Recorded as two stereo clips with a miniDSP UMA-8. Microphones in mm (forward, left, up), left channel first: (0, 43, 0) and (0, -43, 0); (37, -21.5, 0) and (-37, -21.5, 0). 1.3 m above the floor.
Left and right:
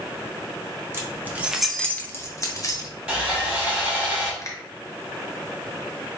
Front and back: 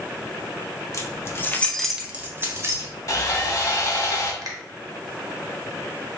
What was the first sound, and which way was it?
Keys jangling, 35° right.